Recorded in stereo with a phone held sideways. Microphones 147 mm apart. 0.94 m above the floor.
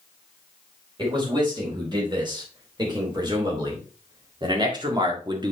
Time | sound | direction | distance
1.0 | a man speaking | 30° right (ahead or behind) | 4 m